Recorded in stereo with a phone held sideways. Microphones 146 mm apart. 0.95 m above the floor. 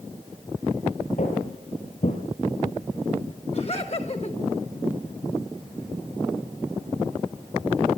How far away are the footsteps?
About 7 m.